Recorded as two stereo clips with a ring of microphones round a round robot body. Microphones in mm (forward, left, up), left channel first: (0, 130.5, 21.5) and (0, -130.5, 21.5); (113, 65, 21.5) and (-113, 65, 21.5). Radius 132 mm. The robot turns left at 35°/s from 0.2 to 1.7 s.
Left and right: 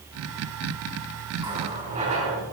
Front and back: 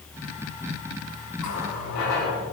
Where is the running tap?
15° right, 4.5 m; by 2.4 s 25° right, 4.5 m.